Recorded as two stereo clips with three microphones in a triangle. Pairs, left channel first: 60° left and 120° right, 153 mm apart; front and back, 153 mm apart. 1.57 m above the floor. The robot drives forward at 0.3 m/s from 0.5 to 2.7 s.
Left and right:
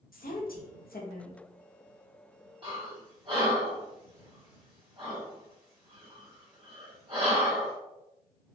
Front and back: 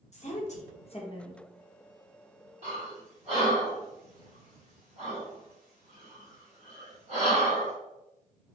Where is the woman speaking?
45° left, 0.7 m; by 1.4 s 65° left, 0.6 m.